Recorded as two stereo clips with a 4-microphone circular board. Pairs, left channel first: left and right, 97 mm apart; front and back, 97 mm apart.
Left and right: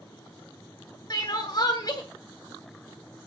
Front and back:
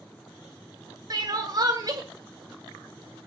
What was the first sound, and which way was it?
Crying, 135° left.